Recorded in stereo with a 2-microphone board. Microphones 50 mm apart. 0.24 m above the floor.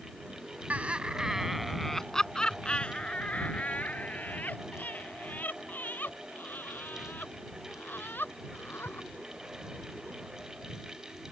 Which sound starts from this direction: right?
Laughter, at 0.7 s.